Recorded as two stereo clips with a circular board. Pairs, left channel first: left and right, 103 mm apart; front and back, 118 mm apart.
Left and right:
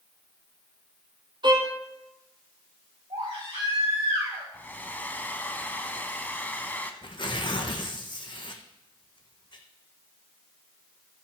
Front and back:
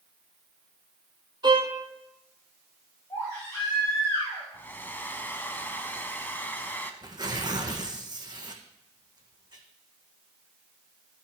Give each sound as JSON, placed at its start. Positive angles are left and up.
{"t": 1.4, "sound": "a violin", "azimuth_deg": -130, "distance_m": 1.8}
{"t": 3.1, "sound": "a baby crying", "azimuth_deg": -65, "distance_m": 6.5}
{"t": 4.5, "sound": "a hair dryer", "azimuth_deg": 45, "distance_m": 0.9}
{"t": 7.0, "sound": "tearing paper", "azimuth_deg": 130, "distance_m": 1.5}